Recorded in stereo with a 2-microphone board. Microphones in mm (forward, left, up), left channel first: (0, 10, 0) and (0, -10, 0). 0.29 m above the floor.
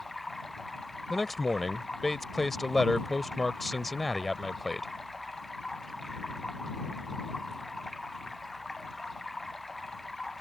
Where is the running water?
15° left (ahead or behind).